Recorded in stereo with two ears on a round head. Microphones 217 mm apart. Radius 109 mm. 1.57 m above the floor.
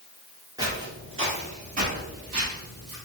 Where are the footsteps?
15° right (ahead or behind), 1.6 m; by 3.0 s 45° right (ahead or behind), 2.5 m.